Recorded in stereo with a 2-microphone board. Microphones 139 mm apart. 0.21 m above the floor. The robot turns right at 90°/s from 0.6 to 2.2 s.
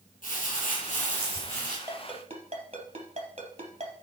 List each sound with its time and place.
0.2 s crumpling: 75° left, 7 m; by 1.8 s straight behind, 7 m
1.9 s a ringtone: 15° right (ahead or behind), 3 m; by 3.9 s 45° right (ahead or behind), 3 m